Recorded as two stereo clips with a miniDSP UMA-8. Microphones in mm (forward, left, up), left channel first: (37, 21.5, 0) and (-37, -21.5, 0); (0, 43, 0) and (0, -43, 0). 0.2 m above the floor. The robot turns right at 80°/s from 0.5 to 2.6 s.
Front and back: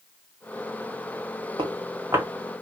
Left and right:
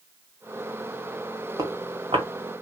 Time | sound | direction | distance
1.6 | footsteps | 135° right | 1.6 m